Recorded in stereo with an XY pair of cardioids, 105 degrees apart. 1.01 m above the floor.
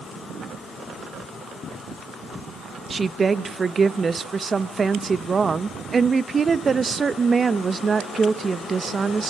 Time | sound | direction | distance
2.9 | a woman speaking | 30° right | 0.9 m